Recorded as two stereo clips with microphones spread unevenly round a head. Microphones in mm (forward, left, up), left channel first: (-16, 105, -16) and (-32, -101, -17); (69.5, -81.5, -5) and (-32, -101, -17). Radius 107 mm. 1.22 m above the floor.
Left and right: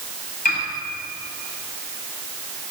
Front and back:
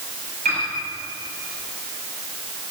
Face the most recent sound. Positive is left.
turn(degrees=135)